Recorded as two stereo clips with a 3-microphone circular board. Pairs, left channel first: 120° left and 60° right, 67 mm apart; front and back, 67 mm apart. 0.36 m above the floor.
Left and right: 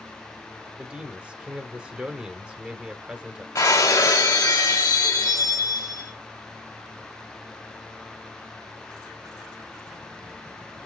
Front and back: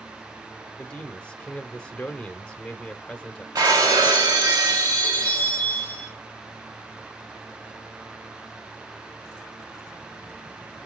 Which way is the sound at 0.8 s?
35° right.